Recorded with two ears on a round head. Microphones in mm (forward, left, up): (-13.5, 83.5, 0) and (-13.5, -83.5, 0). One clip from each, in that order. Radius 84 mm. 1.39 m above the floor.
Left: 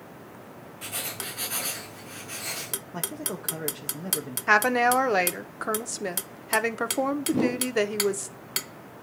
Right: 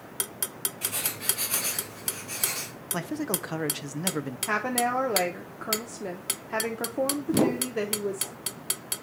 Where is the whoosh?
35° right (ahead or behind), 0.5 m.